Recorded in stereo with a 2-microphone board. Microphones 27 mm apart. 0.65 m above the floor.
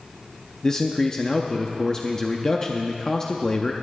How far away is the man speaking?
About 0.7 m.